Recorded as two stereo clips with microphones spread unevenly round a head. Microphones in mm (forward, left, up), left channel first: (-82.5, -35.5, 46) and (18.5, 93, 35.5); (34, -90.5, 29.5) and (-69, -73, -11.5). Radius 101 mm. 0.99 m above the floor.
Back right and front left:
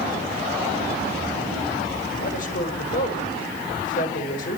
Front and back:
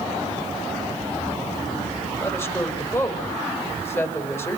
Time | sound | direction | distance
2.2 | a woman speaking | 80° right | 5.5 m